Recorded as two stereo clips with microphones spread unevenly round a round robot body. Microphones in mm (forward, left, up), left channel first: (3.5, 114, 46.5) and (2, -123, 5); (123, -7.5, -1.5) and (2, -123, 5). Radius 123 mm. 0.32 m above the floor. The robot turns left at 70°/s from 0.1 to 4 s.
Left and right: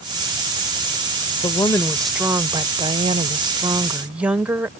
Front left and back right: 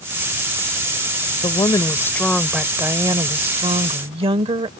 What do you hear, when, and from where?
1.4 s a woman speaking: 25° left; by 4.7 s 155° right